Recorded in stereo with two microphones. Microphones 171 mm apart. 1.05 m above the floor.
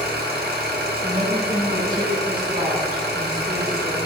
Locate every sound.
0.0 s an engine running: 65° right (ahead or behind), 1.1 m
1.0 s a woman speaking: 55° right (ahead or behind), 2 m